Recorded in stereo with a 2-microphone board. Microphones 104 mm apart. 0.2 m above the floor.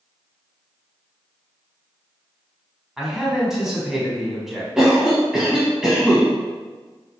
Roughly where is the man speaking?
Centre.